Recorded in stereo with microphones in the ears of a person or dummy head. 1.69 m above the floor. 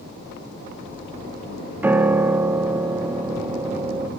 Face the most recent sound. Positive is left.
turn(degrees=-10)  # may be behind; listen again after turning